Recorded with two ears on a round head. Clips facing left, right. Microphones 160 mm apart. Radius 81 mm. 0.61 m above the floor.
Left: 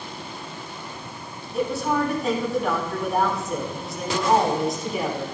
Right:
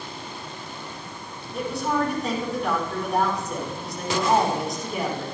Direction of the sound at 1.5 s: Centre (ahead or behind).